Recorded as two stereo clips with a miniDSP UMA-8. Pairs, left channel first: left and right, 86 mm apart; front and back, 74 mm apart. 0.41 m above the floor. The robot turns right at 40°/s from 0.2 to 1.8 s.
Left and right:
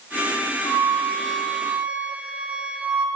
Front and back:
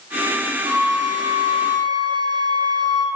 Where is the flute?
145° left, 2.5 m; by 3.1 s 165° right, 2.5 m.